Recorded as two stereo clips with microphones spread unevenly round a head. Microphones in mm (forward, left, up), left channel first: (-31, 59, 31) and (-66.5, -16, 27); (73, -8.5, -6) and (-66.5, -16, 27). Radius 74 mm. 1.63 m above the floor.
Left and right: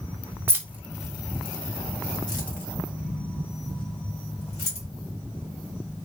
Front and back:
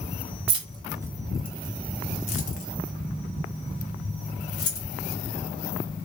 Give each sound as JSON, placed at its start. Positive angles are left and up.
{"t": 0.5, "sound": "keys jangling", "azimuth_deg": -175, "distance_m": 0.7}